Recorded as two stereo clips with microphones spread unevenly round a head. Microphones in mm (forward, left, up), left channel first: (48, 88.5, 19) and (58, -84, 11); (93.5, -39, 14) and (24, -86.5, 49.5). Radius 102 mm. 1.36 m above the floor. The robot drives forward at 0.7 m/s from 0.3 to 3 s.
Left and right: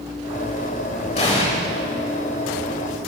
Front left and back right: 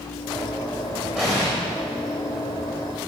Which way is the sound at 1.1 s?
145° left.